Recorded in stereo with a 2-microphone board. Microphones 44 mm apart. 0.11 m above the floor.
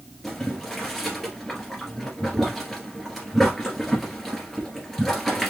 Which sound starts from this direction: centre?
Boiling, at 0.2 s.